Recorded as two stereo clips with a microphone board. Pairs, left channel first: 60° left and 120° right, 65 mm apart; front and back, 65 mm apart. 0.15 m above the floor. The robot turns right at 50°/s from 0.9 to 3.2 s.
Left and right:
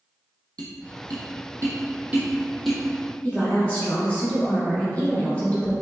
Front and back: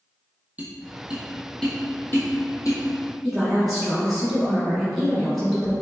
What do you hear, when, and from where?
0.6 s tapping: 115° right, 0.9 m; by 2.8 s 20° right, 0.9 m
3.2 s a woman speaking: 95° left, 1.1 m